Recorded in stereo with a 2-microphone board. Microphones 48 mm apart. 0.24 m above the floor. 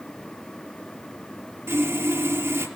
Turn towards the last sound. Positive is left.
turn(degrees=-70)  # may be behind; listen again after turning